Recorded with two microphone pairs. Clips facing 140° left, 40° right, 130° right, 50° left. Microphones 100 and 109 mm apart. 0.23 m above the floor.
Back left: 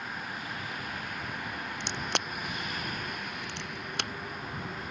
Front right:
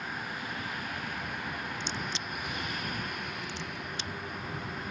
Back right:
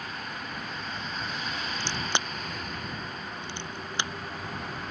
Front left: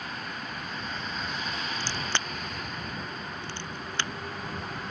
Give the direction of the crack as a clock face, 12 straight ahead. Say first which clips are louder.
Back left 3 dB, back right 4 dB; 7 o'clock.